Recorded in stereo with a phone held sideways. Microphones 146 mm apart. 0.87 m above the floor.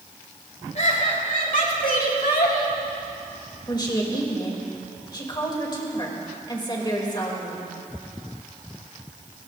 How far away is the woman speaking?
About 3 m.